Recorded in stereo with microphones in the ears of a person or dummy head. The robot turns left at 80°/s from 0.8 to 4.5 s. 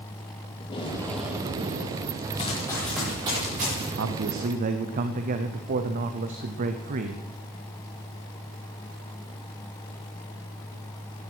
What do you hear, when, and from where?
0.6 s tape being pulled: 30° left, 2.5 m; by 2.1 s 75° right, 2.5 m
2.4 s running footsteps: 35° left (ahead or behind), 6.5 m; by 3.9 s 70° right (ahead or behind), 7.5 m
4.0 s a man speaking: 95° right, 1.1 m; by 7.3 s 135° right, 1.1 m